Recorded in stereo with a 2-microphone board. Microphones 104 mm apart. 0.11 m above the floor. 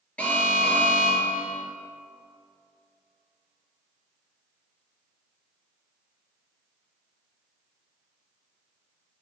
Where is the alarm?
10° left (ahead or behind), 3.5 m.